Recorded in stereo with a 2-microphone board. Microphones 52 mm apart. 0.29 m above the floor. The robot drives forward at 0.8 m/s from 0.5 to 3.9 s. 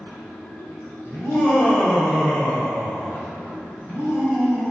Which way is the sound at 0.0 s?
50° left (ahead or behind).